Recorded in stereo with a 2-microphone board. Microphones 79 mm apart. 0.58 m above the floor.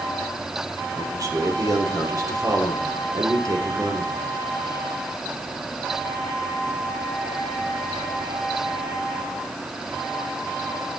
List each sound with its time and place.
1.0 s a man speaking: 45° right (ahead or behind), 1.8 m